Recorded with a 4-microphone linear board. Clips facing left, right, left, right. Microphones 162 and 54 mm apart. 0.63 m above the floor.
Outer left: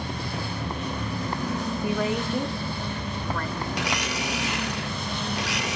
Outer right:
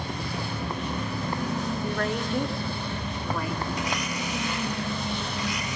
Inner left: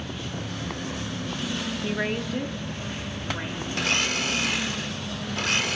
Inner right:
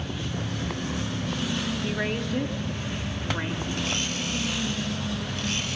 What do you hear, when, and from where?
1.8 s a woman speaking: 10° left (ahead or behind), 0.8 m; by 3.6 s 10° right (ahead or behind), 2 m
3.7 s a blender: 70° left (ahead or behind), 0.8 m